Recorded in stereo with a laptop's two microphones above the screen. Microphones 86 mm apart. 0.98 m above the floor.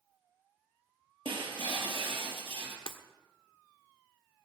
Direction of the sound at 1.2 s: 75° right (ahead or behind).